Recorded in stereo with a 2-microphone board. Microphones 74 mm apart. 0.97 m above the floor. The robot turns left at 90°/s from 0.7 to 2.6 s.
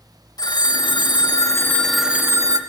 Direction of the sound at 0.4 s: 115° left.